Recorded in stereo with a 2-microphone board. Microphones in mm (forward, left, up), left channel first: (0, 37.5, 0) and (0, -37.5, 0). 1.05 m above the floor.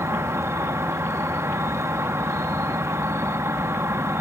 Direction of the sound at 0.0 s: 40° right (ahead or behind).